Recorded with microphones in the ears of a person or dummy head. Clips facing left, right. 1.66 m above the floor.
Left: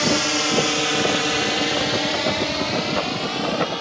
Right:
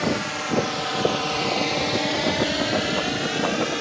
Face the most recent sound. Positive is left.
turn(degrees=-25)  # may be behind; listen again after turning